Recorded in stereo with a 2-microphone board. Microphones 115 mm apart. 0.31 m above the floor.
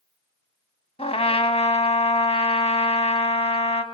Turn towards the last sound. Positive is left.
turn(degrees=65)  # may be behind; listen again after turning